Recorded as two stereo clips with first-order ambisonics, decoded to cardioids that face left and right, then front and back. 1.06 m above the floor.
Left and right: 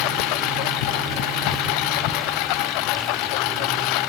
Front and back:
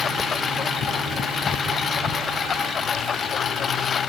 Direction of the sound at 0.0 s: 70° left.